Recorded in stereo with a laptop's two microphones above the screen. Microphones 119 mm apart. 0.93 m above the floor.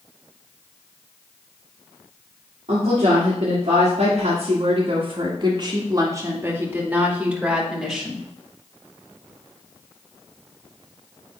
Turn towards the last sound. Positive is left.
turn(degrees=0)  # may be behind; listen again after turning